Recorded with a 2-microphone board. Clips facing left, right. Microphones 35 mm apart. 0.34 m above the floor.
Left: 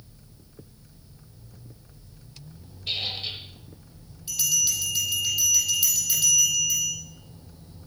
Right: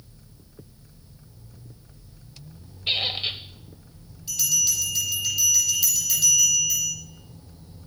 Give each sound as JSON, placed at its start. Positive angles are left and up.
{"t": 2.9, "sound": "a squeak", "side_deg": -40, "distance_m": 1.2}
{"t": 4.3, "sound": "a bell", "side_deg": 10, "distance_m": 7.5}